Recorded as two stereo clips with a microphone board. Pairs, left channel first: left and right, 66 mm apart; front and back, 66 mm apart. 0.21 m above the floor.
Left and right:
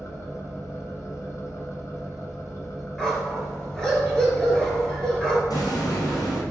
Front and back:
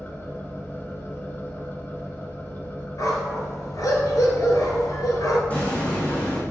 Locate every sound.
0.0 s an engine running: 55° left, 1.4 m
3.0 s a dog barking: 10° left, 1.7 m
5.5 s an explosion: 65° left, 2.5 m